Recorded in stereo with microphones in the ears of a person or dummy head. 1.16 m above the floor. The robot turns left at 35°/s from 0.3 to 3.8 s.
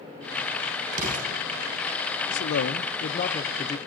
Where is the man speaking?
70° left, 0.7 m; by 3.8 s 20° left, 0.7 m.